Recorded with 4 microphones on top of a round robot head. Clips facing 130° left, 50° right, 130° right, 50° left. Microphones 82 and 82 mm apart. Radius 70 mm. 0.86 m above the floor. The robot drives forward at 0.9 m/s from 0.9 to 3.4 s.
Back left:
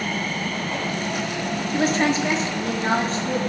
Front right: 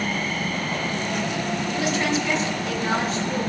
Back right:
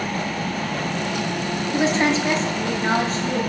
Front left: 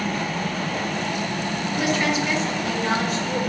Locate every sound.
1.7 s a woman speaking: 170° left, 1.3 m; by 3.4 s 175° left, 2.5 m